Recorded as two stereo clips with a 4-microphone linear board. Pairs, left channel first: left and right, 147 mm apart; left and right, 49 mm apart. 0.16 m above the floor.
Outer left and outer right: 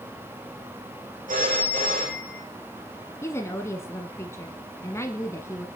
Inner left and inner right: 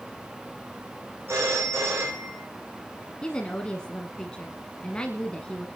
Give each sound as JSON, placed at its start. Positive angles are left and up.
{"t": 1.3, "sound": "a phone ringing", "side_deg": -60, "distance_m": 7.5}
{"t": 3.2, "sound": "a woman speaking", "side_deg": 20, "distance_m": 1.4}